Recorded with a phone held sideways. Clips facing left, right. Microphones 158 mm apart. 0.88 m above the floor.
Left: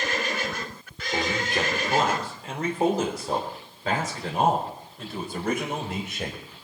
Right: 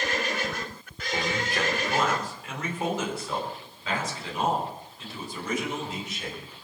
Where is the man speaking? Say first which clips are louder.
Left 2 dB; 20° left (ahead or behind), 3 m; by 6.4 s 65° left (ahead or behind), 4.5 m.